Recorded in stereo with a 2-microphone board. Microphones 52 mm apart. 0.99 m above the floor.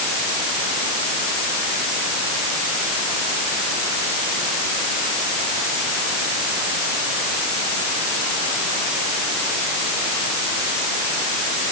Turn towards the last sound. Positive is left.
No sound to turn to.